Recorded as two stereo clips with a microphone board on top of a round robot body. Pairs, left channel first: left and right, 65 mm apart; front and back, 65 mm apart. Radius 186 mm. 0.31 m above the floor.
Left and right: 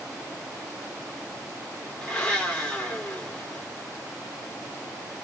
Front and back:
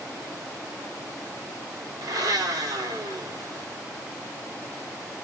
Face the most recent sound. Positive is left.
turn(degrees=165)